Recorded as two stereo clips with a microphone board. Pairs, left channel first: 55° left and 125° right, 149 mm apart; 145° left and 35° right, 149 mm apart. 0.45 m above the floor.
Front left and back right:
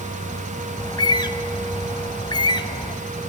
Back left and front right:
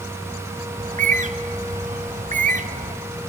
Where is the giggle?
No giggle in this recording.